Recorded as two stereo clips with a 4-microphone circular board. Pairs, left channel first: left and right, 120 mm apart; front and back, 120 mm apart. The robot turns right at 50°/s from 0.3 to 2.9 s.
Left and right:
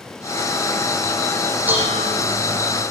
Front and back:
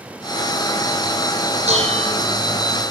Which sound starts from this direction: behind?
Dishes clattering, at 1.7 s.